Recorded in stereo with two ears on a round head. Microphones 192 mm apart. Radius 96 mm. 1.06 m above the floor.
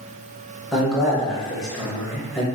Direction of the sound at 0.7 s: Centre (ahead or behind).